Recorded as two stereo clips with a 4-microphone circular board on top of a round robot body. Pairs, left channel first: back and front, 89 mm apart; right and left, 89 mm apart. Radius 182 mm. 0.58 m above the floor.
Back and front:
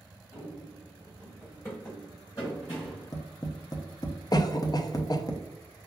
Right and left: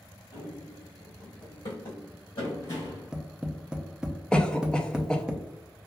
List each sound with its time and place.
0.3 s running footsteps: 130° right, 1.2 m; by 3.1 s 120° right, 3 m
2.8 s tapping: 170° left, 0.8 m
4.3 s a cough: 170° right, 0.7 m